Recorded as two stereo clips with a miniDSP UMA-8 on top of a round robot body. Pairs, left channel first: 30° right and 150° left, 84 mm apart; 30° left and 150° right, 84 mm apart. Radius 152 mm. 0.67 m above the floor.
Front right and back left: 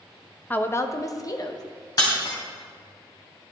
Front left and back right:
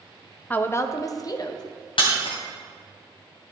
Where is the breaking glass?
15° left, 3 m.